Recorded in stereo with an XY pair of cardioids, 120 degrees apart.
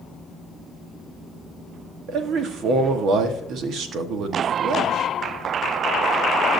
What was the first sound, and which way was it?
A man speaking, 65° right.